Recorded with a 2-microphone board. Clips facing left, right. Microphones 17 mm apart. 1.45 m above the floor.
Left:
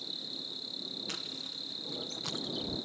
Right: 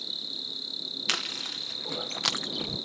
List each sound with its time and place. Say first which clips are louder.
0.0 s an insect: right 5 dB; 20° right (ahead or behind)
1.1 s chewing: right 9 dB; 70° right (ahead or behind)